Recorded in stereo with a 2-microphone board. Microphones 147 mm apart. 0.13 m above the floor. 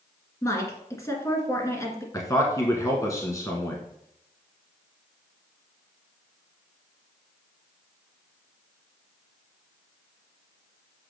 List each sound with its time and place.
0.4 s a woman speaking: 20° left (ahead or behind), 1.8 m
2.1 s a man speaking: 20° left (ahead or behind), 1.1 m